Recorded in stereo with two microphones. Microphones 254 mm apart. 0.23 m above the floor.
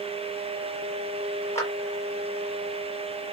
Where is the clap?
10° left (ahead or behind), 4.5 m.